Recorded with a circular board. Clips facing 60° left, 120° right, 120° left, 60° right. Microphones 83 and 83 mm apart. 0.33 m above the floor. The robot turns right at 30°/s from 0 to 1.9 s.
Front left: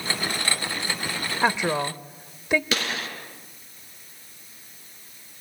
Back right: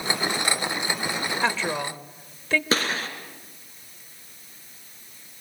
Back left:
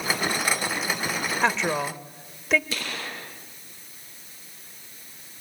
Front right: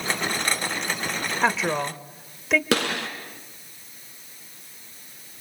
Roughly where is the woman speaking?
Ahead.